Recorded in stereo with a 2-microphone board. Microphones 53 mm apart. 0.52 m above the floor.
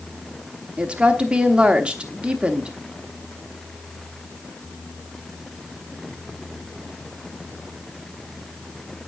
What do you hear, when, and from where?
0.8 s a woman speaking: 20° right (ahead or behind), 0.8 m